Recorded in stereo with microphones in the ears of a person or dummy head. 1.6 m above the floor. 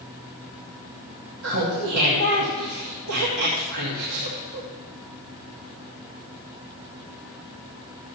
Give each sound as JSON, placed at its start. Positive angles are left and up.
{"t": 1.4, "sound": "laughter", "side_deg": -80, "distance_m": 2.5}